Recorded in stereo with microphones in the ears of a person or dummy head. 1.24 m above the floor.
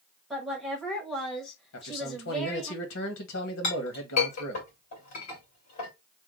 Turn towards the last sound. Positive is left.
turn(degrees=50)  # may be behind; listen again after turning